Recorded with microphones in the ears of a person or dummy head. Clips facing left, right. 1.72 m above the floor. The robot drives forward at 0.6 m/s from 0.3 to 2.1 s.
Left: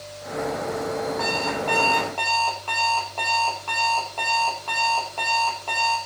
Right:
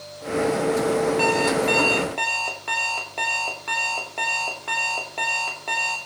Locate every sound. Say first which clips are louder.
1.2 s an alarm clock: right 6 dB; 35° right (ahead or behind), 1.0 m; by 6.0 s 25° right (ahead or behind), 1.4 m